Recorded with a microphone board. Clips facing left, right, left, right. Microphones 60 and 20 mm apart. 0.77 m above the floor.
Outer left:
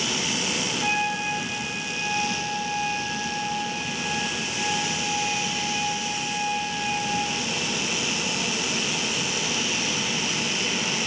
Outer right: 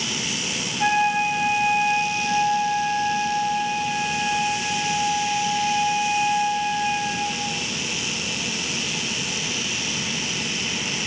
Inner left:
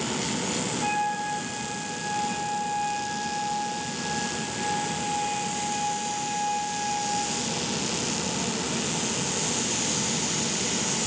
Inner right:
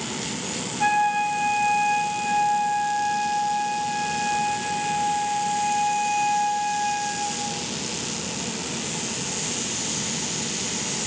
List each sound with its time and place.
0.8 s a flute: 55° right (ahead or behind), 0.9 m